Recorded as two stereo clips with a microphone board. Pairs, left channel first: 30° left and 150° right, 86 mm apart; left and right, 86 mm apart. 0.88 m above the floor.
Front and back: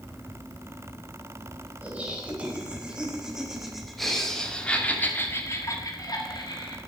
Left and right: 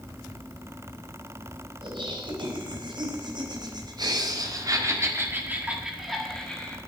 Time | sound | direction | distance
1.8 | laughter | 80° right | 4.5 m